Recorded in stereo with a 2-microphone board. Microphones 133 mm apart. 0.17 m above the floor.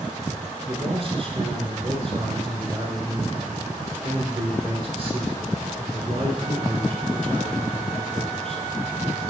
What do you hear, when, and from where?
0.7 s a man speaking: 45° right (ahead or behind), 1.9 m